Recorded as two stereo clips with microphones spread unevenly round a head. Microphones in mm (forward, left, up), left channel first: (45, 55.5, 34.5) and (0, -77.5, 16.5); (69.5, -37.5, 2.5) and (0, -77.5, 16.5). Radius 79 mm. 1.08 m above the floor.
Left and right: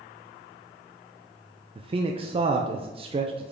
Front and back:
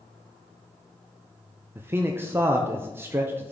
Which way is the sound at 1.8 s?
85° right.